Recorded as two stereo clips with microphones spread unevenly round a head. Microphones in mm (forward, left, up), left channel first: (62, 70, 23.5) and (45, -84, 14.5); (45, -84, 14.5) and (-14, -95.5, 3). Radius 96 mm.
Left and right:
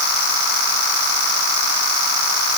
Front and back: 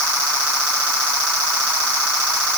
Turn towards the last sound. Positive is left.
No sound to turn to.